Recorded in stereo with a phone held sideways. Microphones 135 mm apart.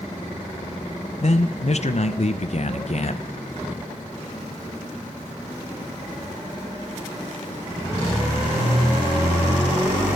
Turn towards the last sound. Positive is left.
turn(degrees=55)  # may be behind; listen again after turning